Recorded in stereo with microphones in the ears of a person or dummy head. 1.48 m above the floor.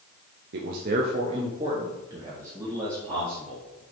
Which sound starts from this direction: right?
A man speaking, at 0.5 s.